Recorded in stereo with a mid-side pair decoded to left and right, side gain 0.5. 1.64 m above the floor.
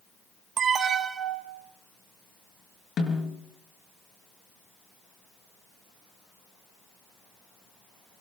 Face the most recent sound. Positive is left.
turn(degrees=50)